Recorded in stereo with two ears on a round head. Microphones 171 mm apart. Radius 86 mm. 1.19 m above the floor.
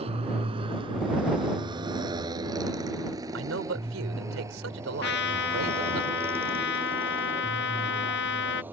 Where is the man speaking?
80° right.